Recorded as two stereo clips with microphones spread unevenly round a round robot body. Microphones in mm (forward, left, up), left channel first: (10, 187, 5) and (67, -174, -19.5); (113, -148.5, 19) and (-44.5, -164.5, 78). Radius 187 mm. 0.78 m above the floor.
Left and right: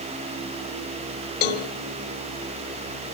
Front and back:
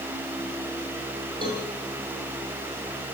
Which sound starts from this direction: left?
A cowbell, at 1.4 s.